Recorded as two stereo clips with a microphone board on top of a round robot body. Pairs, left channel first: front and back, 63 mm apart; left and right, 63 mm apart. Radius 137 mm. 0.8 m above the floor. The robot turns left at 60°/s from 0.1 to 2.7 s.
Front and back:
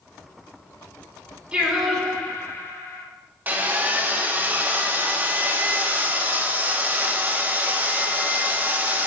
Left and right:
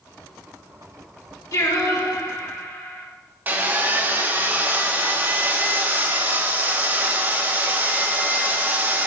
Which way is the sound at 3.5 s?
135° right.